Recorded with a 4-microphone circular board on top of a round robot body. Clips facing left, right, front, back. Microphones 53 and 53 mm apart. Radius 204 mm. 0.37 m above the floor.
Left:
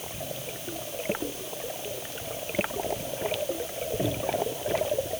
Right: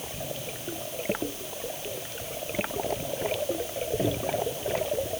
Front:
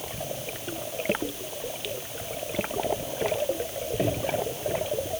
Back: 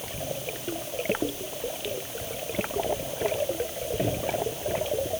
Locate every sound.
Only background noise.